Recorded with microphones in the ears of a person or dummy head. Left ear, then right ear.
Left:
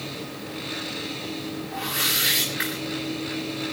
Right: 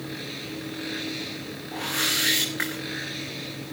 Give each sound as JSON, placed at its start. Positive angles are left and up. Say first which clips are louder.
{"t": 1.7, "sound": "a whoosh", "louder": "even", "side_deg": -40, "distance_m": 6.0}